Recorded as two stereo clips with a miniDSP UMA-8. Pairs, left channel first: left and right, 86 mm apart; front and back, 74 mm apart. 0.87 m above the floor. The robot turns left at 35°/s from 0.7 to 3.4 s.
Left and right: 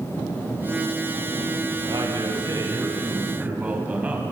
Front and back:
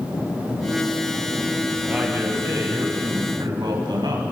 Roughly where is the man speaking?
Right.